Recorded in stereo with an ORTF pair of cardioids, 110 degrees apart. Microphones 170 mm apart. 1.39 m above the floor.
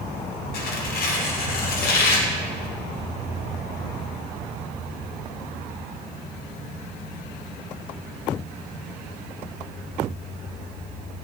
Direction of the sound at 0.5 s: 65° left.